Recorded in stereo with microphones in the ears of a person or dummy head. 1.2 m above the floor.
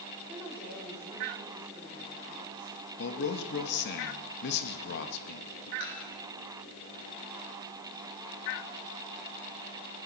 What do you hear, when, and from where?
0.3 s a woman speaking: 10° right (ahead or behind), 3.5 m
3.0 s a man speaking: 70° left (ahead or behind), 1.3 m
5.8 s dishes clattering: 80° left, 5.5 m